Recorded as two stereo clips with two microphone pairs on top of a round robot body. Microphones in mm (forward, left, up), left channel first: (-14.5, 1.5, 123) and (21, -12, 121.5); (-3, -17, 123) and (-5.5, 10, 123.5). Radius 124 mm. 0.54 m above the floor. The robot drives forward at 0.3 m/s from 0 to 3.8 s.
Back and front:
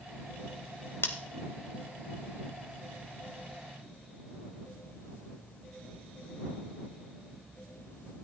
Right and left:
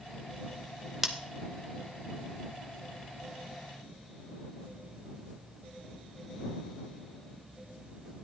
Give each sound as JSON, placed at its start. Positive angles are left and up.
{"t": 1.0, "sound": "scissors", "azimuth_deg": 175, "distance_m": 0.6}